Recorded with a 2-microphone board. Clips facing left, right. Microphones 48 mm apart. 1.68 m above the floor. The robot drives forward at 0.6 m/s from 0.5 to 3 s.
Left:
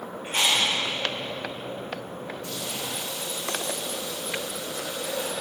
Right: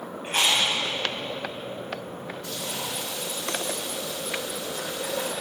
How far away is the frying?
About 3.5 m.